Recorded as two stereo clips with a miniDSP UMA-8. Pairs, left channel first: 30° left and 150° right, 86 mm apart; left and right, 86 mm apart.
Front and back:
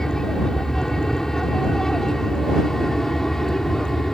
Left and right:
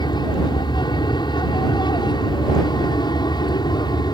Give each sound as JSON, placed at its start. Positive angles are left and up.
{"t": 0.0, "sound": "an aircraft", "azimuth_deg": 115}